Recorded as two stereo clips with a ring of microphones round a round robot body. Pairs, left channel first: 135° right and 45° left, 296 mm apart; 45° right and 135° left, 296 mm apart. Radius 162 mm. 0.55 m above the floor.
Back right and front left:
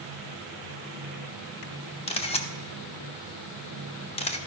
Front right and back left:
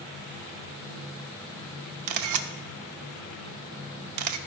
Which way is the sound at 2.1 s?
155° left.